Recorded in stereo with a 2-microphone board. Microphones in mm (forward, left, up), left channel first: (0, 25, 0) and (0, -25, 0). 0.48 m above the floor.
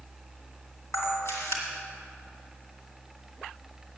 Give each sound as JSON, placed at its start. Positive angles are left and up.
{"t": 0.9, "sound": "a camera shutter", "side_deg": 80, "distance_m": 2.0}